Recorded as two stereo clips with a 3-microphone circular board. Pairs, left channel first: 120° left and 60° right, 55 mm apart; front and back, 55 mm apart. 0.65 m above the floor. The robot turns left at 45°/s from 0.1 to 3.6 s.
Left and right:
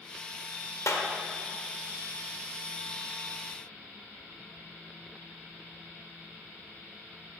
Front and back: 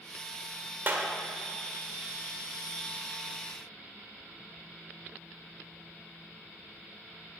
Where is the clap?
130° left, 1.4 m; by 1.1 s 120° left, 1.4 m.